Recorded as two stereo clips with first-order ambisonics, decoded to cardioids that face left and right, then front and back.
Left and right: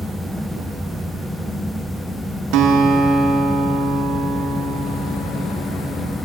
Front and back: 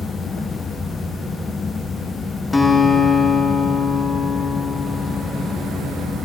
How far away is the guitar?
About 1.9 m.